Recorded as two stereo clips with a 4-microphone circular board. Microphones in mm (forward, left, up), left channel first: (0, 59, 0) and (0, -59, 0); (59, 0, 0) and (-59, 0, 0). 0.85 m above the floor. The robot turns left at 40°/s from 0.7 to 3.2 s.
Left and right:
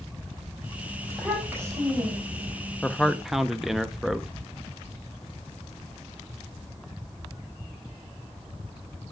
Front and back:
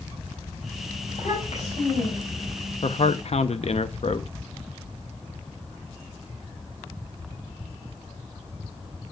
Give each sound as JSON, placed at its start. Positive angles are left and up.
{"t": 1.1, "sound": "a child speaking", "azimuth_deg": 0, "distance_m": 4.0}
{"t": 2.8, "sound": "a man speaking", "azimuth_deg": 10, "distance_m": 0.7}